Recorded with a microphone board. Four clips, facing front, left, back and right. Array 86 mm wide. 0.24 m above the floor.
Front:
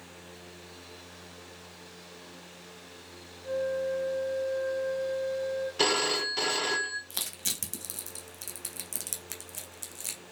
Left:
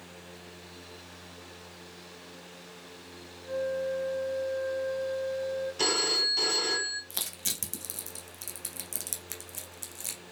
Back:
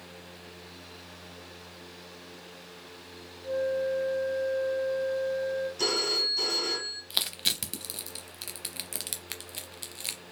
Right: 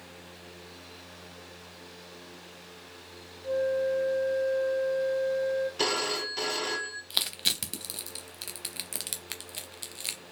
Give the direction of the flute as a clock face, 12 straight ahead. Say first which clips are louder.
Right 4 dB, back 2 dB; 1 o'clock.